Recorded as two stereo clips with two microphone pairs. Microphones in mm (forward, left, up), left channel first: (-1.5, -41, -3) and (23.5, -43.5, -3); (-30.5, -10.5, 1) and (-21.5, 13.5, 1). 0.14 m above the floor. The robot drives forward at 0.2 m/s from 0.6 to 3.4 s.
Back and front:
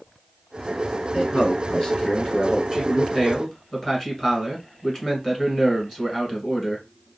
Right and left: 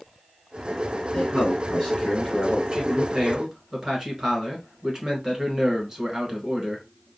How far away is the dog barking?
No dog barking in this recording.